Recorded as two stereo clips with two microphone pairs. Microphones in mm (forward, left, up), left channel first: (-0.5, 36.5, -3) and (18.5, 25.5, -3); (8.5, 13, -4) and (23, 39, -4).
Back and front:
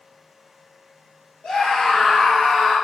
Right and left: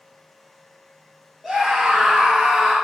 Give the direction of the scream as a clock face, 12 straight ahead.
7 o'clock.